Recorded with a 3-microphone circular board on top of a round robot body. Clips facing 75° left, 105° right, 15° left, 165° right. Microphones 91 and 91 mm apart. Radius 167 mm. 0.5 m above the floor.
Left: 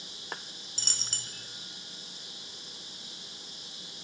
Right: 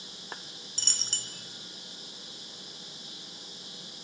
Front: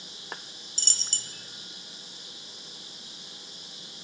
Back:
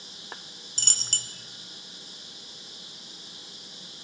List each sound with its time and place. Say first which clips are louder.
0.8 s a dropped coin: right 1 dB, back 5 dB; 160° left, 0.7 m